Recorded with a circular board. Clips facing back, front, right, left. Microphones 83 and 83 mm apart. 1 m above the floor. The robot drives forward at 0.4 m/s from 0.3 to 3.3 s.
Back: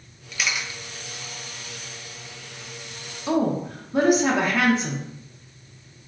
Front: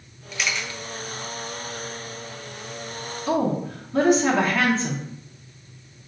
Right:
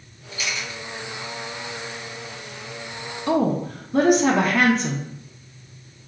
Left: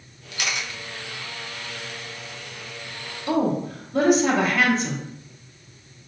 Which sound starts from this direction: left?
A camera shutter, at 0.3 s.